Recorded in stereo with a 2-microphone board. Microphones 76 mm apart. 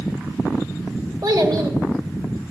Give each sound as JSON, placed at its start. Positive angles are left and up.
{"t": 1.2, "sound": "a child speaking", "side_deg": -55, "distance_m": 1.9}